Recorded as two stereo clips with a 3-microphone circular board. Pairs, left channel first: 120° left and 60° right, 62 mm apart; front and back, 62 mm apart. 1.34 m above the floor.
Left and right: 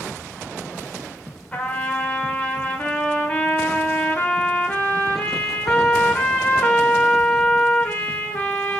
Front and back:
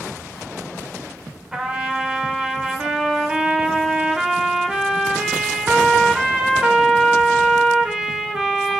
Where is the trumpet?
120° left, 1.1 m.